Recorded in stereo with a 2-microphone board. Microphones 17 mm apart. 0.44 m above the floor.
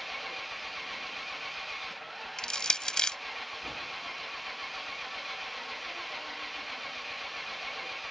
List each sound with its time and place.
0.0 s an engine running: centre (ahead or behind)
2.4 s crushing: 50° left (ahead or behind)